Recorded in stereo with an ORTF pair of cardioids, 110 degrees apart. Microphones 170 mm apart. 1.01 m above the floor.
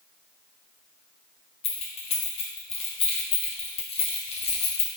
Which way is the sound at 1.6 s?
35° left.